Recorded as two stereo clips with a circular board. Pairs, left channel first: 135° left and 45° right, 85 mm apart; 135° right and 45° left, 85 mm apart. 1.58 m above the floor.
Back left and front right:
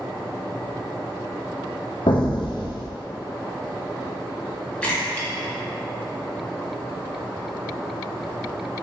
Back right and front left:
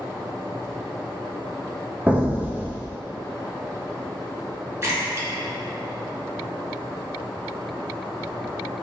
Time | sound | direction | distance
2.1 | an explosion | 120° left | 0.5 m
4.8 | a splash | 70° left | 0.9 m